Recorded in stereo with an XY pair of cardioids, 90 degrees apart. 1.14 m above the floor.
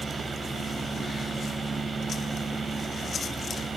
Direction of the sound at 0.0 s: 35° right.